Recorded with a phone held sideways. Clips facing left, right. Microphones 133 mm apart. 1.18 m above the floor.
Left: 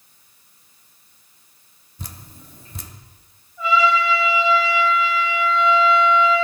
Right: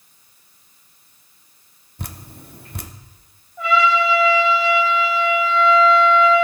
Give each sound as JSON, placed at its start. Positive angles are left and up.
{"t": 2.0, "sound": "dripping", "side_deg": -65, "distance_m": 0.7}
{"t": 3.6, "sound": "a trumpet", "side_deg": -70, "distance_m": 3.0}